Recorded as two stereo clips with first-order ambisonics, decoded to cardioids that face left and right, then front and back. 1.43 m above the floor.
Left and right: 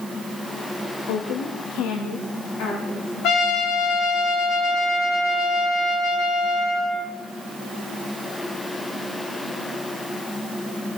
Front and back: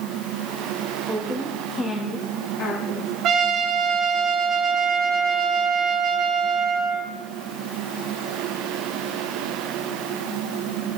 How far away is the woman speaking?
About 1.9 m.